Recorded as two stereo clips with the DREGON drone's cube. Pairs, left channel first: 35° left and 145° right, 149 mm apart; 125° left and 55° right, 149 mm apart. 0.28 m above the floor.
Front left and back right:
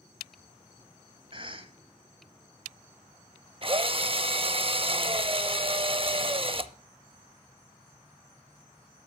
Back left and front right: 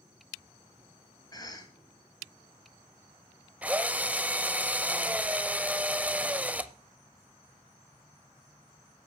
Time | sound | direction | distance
1.3 | a cough | 175° left | 1.7 m
3.6 | a drill | 130° right | 0.5 m